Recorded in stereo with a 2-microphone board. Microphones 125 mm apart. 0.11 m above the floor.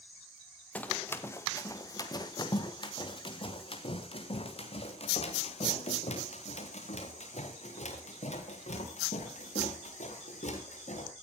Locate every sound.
0.8 s running footsteps: 10° left (ahead or behind), 2.5 m; by 11.1 s 70° left (ahead or behind), 9 m